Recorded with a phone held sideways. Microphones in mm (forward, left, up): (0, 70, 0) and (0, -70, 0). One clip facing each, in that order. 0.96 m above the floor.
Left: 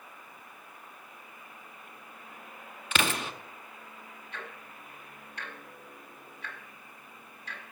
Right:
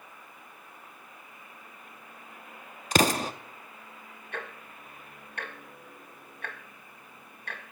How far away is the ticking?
About 1.9 m.